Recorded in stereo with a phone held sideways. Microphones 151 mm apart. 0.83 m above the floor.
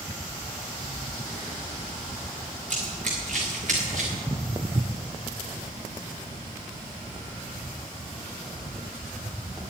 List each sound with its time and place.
2.7 s running footsteps: 55° right (ahead or behind), 3.5 m
4.1 s footsteps: 20° right (ahead or behind), 0.8 m; by 9.7 s 30° right (ahead or behind), 4 m